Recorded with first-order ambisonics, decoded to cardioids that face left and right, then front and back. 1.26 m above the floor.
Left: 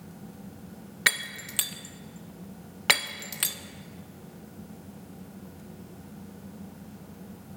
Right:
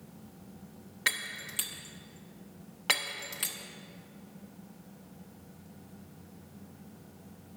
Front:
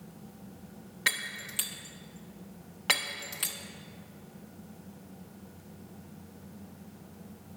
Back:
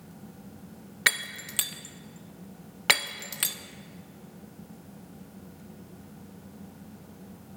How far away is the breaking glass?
About 0.5 m.